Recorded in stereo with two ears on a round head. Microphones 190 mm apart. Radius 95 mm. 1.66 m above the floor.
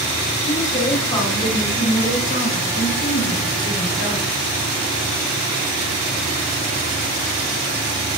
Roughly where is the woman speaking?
Centre.